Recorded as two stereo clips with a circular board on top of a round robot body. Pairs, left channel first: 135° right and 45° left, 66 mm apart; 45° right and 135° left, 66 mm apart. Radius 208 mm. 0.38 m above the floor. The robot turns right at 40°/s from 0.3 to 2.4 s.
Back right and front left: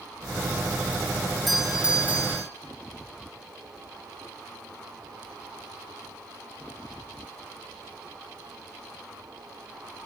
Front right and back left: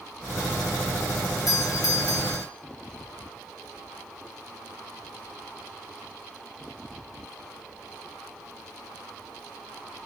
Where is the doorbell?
45° right, 3.5 m; by 2.5 s 10° right, 3.5 m.